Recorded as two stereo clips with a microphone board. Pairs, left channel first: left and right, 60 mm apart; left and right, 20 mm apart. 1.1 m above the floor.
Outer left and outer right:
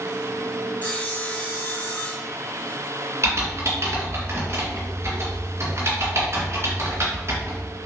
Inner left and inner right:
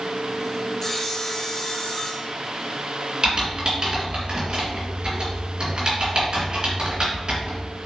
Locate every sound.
0.8 s sawing: 25° left (ahead or behind), 1.0 m
3.2 s typing on a keyboard: 45° right (ahead or behind), 2.5 m